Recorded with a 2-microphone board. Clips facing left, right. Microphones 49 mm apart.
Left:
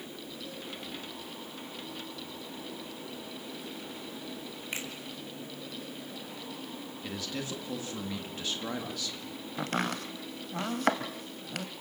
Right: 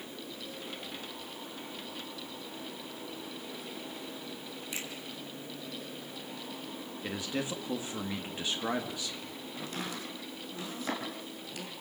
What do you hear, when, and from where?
4.7 s a finger snap: 45° left (ahead or behind), 4 m
7.0 s a man speaking: 20° right (ahead or behind), 1.5 m
9.6 s chopping: 65° left (ahead or behind), 1.9 m